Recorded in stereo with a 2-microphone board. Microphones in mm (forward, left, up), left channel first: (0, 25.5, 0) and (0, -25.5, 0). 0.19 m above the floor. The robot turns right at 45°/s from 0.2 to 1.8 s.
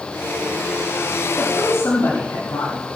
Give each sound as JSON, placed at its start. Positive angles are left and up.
{"t": 1.4, "sound": "a woman speaking", "side_deg": 80, "distance_m": 6.5}